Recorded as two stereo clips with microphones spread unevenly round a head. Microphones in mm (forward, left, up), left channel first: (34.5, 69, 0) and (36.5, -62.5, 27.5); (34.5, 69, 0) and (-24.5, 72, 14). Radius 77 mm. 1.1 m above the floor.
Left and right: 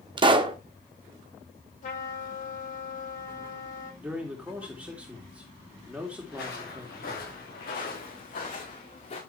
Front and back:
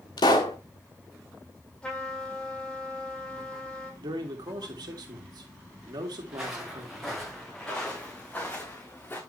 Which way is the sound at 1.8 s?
70° left.